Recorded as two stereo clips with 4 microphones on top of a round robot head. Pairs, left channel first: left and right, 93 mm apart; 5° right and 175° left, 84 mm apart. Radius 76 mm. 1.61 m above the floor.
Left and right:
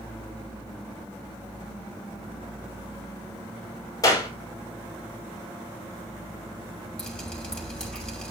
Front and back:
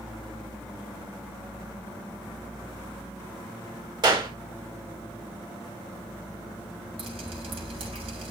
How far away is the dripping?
About 8 m.